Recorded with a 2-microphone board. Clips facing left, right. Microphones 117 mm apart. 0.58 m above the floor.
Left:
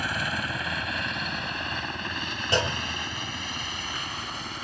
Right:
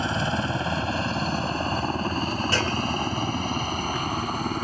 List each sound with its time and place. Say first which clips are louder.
0.0 s a helicopter: right 5 dB; 30° right (ahead or behind); by 4.6 s 45° right (ahead or behind)
2.5 s a clunk: right 3 dB; 20° left (ahead or behind)